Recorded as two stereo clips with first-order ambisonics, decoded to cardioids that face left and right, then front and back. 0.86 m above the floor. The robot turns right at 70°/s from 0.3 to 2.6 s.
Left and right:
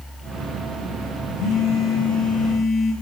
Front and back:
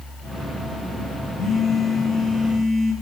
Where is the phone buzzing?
60° left, 5.5 m; by 2.9 s 145° left, 5.5 m.